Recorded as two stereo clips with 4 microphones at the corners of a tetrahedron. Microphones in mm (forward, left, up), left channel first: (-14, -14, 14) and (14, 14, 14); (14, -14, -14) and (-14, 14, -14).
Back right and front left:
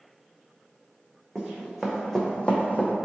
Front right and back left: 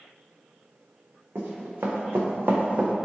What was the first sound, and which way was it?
Running footsteps, 120° left.